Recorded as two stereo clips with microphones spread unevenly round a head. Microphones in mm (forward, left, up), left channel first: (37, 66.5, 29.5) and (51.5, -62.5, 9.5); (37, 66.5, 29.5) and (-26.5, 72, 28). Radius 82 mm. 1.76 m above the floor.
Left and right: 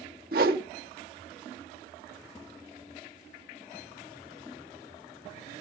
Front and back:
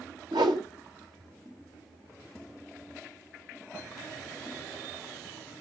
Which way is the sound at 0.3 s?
125° right.